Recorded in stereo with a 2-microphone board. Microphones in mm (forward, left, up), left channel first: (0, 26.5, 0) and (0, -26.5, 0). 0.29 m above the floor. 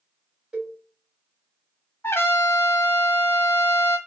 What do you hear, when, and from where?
0.5 s a cowbell: 20° right (ahead or behind), 1.4 m
2.0 s a trumpet: 50° left (ahead or behind), 0.7 m